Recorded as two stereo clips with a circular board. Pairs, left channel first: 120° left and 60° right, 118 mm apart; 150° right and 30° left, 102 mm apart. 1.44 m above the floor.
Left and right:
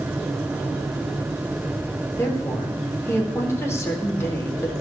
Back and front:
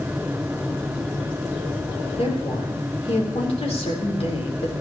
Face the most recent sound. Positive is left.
turn(degrees=-170)